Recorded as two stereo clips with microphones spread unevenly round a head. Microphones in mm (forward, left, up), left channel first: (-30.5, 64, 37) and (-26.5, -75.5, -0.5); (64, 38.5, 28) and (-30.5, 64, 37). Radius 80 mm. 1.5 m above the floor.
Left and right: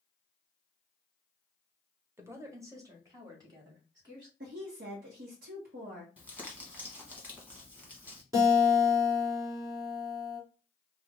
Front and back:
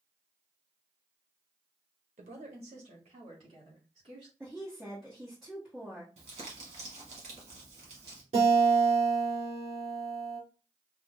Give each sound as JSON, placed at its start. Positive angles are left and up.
{"t": 2.2, "sound": "a woman speaking", "azimuth_deg": -165, "distance_m": 0.8}
{"t": 4.4, "sound": "a woman speaking", "azimuth_deg": -110, "distance_m": 0.9}
{"t": 6.2, "sound": "crumpling", "azimuth_deg": -170, "distance_m": 1.3}
{"t": 8.3, "sound": "a guitar", "azimuth_deg": -160, "distance_m": 2.5}